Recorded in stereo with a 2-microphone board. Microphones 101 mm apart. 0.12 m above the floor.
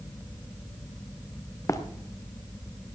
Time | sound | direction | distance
1.7 | running footsteps | 30° left (ahead or behind) | 1.3 m